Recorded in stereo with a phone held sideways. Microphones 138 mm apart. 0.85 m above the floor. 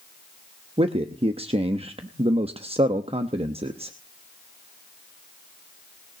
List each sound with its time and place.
0.8 s a man speaking: 45° right (ahead or behind), 0.9 m